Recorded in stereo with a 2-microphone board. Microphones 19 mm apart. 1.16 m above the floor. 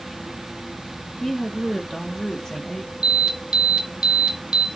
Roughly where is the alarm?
Right.